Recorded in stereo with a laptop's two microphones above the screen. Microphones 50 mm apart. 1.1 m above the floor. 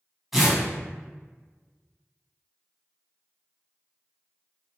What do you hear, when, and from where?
0.3 s tearing paper: 5° right (ahead or behind), 1.6 m